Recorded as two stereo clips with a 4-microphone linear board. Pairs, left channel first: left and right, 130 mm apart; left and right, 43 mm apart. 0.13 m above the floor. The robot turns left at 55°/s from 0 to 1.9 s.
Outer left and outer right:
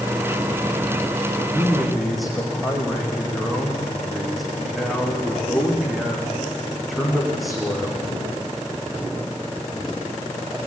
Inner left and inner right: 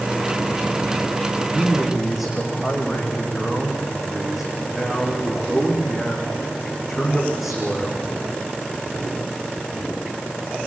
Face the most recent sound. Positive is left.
turn(degrees=0)  # may be behind; listen again after turning